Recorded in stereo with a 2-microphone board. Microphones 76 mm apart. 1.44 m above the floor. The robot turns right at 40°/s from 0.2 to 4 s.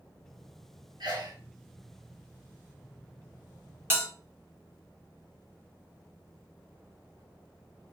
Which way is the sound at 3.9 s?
30° right (ahead or behind).